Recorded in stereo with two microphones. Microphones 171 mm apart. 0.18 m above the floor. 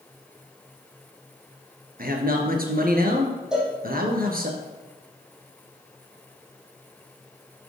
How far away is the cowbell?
About 5 m.